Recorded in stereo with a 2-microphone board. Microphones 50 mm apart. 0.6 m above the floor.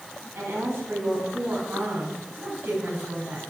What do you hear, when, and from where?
0.3 s a woman speaking: 45° right (ahead or behind), 4.5 m